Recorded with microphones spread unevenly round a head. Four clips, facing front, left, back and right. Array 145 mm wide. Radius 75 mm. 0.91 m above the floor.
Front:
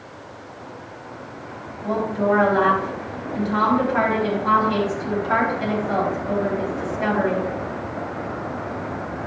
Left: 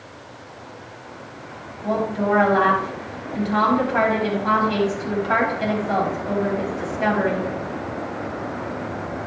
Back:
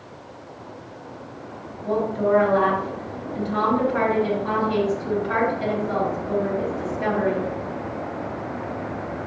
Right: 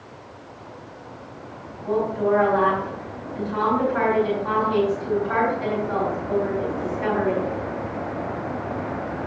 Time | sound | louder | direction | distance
1.8 | a woman speaking | even, front 1 dB | 80° left | 4.5 m